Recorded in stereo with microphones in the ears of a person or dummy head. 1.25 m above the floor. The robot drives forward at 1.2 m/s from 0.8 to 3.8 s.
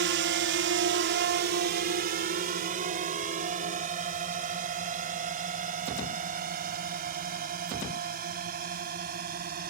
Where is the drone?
55° right (ahead or behind); by 9.7 s 45° right (ahead or behind).